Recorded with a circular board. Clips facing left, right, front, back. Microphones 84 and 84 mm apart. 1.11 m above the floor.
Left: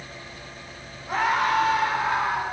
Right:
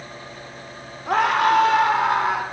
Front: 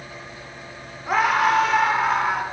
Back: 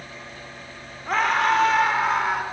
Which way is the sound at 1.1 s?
80° right.